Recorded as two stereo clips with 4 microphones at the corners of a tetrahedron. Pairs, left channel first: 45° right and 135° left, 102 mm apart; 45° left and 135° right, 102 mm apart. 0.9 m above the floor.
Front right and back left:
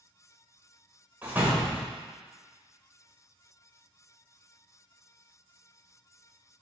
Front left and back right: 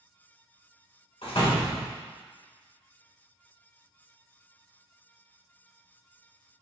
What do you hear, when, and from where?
1.2 s a door slam: 65° left, 2.5 m